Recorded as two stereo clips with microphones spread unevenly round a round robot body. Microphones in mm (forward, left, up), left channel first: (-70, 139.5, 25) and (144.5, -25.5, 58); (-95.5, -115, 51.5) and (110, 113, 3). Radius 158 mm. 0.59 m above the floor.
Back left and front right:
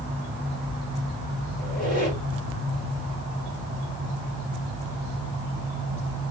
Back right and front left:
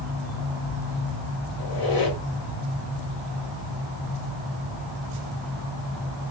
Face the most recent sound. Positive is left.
turn(degrees=-155)